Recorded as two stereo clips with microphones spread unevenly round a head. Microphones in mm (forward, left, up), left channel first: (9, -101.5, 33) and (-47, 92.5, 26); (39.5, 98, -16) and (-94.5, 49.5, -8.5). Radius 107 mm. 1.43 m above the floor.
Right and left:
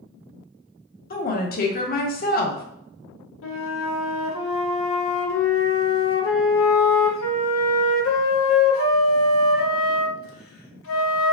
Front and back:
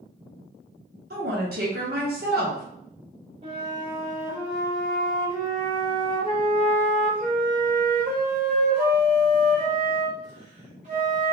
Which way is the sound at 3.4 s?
95° right.